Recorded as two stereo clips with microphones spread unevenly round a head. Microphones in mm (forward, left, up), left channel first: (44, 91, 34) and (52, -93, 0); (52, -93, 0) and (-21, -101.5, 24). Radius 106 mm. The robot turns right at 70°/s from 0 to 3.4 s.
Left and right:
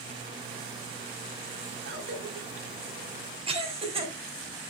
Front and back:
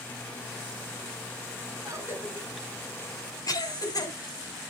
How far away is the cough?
About 8.5 m.